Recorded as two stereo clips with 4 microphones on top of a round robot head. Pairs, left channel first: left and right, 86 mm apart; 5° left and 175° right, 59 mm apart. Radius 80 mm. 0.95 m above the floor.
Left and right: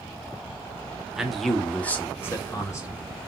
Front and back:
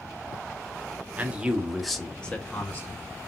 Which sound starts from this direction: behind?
A man speaking, at 1.2 s.